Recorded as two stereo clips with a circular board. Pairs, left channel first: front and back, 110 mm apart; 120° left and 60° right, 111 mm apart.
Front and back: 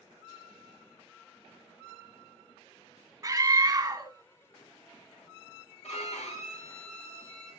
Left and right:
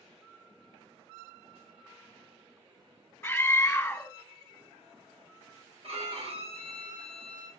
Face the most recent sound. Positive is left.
turn(degrees=-25)